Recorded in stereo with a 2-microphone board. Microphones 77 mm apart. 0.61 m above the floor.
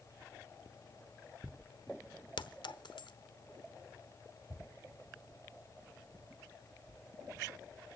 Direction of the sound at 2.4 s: 75° left (ahead or behind).